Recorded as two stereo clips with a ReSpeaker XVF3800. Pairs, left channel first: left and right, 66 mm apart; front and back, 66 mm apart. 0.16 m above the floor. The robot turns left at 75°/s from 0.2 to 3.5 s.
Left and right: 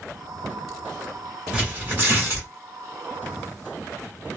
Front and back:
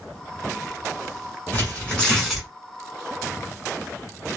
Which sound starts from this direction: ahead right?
Tearing paper, at 1.5 s.